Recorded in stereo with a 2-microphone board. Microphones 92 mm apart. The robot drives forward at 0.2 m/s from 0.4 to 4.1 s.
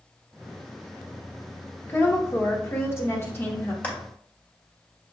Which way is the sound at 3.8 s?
15° left (ahead or behind).